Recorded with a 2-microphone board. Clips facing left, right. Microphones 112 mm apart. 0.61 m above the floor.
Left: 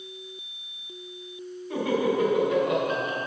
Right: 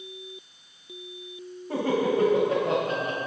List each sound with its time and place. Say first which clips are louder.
1.7 s laughter: even; 40° right (ahead or behind), 4 m; by 3.2 s 35° right (ahead or behind), 3.5 m